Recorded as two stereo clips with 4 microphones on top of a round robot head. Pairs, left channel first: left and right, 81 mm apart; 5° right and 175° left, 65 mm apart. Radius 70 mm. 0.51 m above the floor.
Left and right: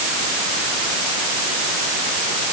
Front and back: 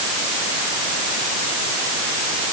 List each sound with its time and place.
Only background noise.